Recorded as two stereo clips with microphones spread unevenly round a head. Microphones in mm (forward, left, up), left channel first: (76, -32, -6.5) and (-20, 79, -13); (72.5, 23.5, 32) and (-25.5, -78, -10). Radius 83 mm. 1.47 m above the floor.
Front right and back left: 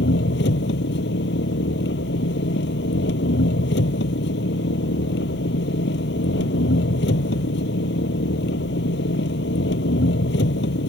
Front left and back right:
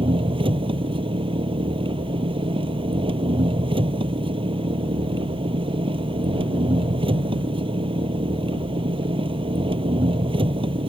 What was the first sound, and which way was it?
An engine running, 75° right.